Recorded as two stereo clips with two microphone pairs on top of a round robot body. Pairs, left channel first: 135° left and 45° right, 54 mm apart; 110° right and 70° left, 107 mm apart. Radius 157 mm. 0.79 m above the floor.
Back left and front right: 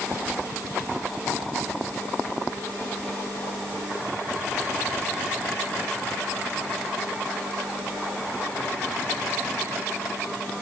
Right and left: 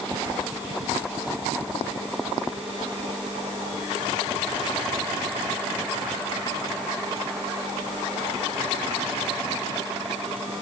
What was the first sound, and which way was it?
Only background noise.